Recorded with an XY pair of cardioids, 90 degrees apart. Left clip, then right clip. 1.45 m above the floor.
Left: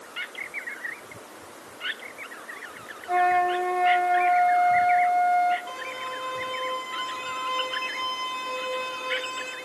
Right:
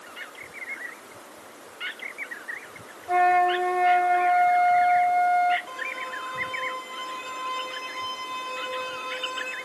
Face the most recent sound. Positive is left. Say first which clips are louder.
# right 1 dB
turn(degrees=25)